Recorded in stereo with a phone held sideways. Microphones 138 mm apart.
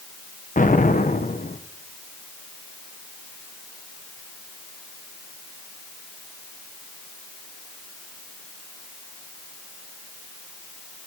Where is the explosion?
75° left (ahead or behind), 1.1 m.